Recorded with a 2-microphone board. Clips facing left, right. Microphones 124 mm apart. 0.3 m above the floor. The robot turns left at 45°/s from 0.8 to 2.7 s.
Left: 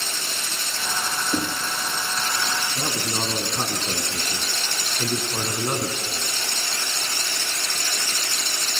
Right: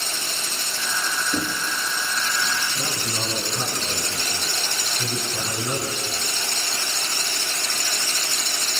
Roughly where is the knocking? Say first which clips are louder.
Left 2 dB; centre.